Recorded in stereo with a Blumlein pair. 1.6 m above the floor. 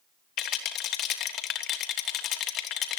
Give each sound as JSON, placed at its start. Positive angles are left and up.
{"t": 0.4, "sound": "a rattle", "azimuth_deg": 30, "distance_m": 3.0}